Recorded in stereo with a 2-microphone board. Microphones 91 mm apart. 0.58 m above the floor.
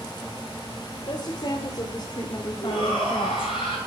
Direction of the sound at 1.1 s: 65° left (ahead or behind).